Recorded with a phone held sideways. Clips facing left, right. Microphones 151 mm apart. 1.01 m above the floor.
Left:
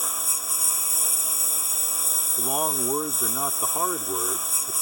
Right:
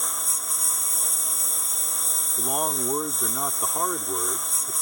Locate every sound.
0.0 s a lawn mower: 5° left (ahead or behind)
2.4 s a man speaking: 5° left (ahead or behind)